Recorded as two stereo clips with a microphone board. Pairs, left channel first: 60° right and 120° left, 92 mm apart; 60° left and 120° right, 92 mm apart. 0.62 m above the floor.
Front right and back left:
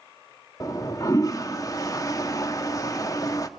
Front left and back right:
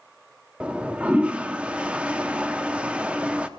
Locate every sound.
0.6 s a toilet flushing: 50° right, 0.8 m